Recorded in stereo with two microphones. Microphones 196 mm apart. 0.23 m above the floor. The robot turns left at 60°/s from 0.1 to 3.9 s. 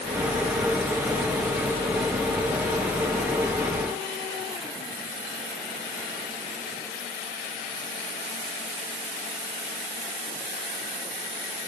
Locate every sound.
Only background noise.